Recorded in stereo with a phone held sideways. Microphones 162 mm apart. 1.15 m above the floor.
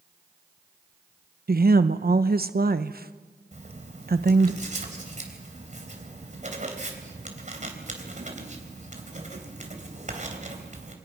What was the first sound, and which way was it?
A woman speaking, 70° right (ahead or behind).